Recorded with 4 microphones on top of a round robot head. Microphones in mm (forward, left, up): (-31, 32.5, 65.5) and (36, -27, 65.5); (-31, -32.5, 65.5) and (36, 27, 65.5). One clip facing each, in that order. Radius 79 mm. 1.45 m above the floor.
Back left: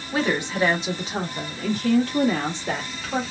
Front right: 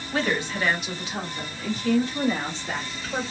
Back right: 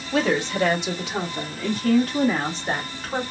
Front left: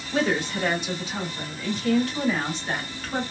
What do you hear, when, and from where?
0.1 s a woman speaking: 145° right, 1.3 m; by 3.2 s 155° left, 1.6 m